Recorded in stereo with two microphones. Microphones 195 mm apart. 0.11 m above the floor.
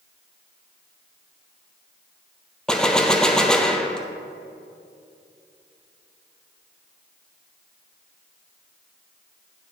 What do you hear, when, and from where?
2.7 s a gunshot: 5° left (ahead or behind), 0.5 m